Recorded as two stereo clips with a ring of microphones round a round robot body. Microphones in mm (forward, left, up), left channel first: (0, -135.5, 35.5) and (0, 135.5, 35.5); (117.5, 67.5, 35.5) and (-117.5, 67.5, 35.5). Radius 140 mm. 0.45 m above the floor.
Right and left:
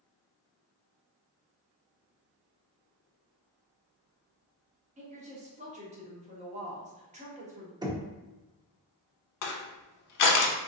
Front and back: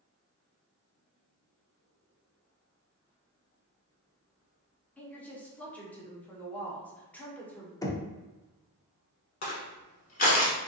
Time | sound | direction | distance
5.0 | a woman speaking | 75° left | 0.9 m
7.8 | knocking | 45° left | 0.6 m
9.4 | crushing | 60° right | 0.6 m